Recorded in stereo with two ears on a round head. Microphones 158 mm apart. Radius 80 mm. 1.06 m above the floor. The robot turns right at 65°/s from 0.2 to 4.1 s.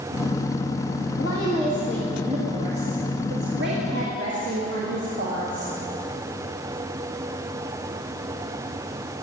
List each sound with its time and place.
1.2 s a woman speaking: 120° left, 1.8 m; by 5.7 s 55° right, 1.8 m